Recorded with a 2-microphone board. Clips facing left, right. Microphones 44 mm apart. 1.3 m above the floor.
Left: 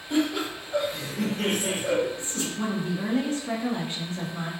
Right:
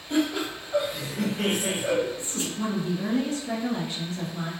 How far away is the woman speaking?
About 1.0 m.